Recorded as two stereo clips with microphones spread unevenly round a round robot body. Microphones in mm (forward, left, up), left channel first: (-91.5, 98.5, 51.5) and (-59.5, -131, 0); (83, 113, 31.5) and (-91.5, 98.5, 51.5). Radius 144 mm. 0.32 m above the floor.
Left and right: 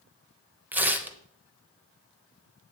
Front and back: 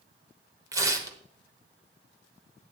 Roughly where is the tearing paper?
Behind right.